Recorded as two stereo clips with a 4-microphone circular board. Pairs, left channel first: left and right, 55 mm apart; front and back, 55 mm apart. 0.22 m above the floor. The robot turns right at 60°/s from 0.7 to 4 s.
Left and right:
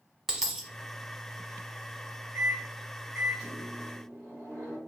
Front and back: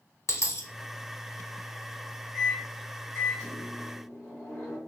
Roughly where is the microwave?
Ahead right.